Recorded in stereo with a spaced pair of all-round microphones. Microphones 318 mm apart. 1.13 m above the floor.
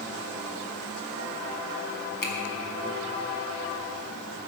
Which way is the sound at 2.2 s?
80° left.